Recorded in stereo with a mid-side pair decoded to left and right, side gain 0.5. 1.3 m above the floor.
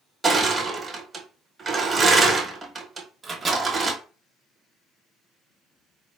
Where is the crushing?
30° right, 1.3 m.